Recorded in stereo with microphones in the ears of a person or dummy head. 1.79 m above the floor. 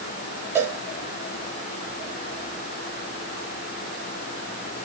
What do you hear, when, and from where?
0.6 s a cowbell: 10° right (ahead or behind), 0.9 m